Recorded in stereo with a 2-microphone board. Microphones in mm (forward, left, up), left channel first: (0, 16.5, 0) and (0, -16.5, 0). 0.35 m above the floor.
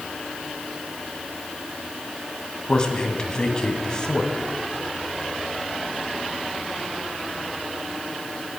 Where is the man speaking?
20° left (ahead or behind), 2 m.